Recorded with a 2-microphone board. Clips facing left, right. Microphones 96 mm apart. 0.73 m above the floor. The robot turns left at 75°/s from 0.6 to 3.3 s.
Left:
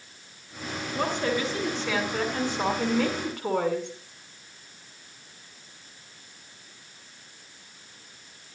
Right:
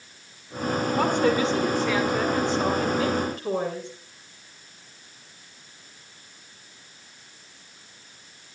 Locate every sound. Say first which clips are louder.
0.9 s a woman speaking: right 4 dB; 110° right, 6.5 m; by 3.9 s 70° left, 6.5 m